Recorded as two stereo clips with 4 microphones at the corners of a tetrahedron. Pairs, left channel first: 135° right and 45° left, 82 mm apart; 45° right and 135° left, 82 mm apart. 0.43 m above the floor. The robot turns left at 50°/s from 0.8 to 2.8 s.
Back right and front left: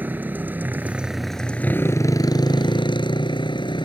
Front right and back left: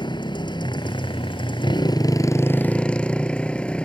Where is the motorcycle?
25° right; by 3.9 s 125° right.